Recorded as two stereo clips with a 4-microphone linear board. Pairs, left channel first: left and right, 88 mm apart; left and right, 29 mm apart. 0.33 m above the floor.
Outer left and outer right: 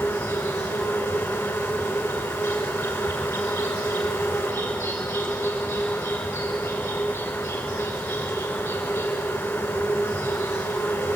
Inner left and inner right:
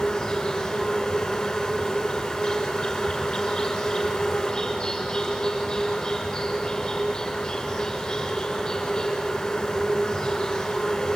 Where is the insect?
25° left (ahead or behind), 5 m.